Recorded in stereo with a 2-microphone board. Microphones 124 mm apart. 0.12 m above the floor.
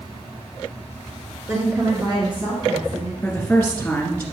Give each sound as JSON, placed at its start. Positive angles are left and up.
{"t": 1.5, "sound": "a woman speaking", "side_deg": -15, "distance_m": 1.4}
{"t": 3.2, "sound": "a woman speaking", "side_deg": 10, "distance_m": 1.8}